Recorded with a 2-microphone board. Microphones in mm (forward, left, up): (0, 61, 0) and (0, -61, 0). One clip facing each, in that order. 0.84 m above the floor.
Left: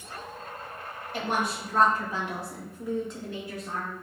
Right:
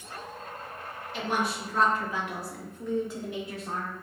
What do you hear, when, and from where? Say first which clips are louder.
1.1 s a woman speaking: even; 50° left (ahead or behind), 2 m; by 3.9 s 40° right (ahead or behind), 1.2 m